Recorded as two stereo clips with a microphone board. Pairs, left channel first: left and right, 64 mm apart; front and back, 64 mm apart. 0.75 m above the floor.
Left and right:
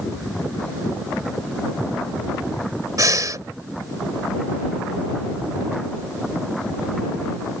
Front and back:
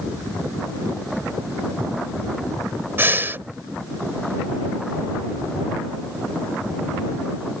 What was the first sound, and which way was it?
Breathing, 120° right.